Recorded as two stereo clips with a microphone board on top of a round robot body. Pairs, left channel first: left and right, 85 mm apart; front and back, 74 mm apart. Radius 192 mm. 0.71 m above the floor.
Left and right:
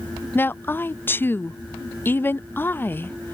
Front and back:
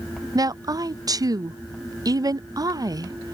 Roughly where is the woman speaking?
Behind left.